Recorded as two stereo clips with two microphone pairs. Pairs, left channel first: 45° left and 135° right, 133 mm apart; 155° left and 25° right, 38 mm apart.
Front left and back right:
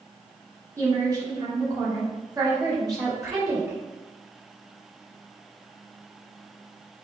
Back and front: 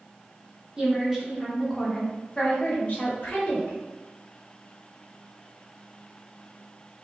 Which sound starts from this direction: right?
A woman speaking, at 0.8 s.